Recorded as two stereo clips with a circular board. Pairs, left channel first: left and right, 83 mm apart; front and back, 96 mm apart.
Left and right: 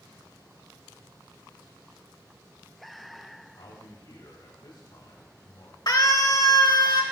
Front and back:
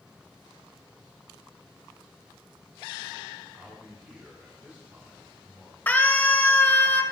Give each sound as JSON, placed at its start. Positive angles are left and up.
{"t": 3.5, "sound": "a man speaking", "azimuth_deg": 110, "distance_m": 3.5}
{"t": 5.9, "sound": "a scream", "azimuth_deg": 70, "distance_m": 2.5}